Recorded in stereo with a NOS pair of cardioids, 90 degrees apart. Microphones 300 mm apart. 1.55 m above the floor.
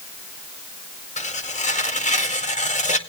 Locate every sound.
1.2 s tearing paper: 25° left, 2 m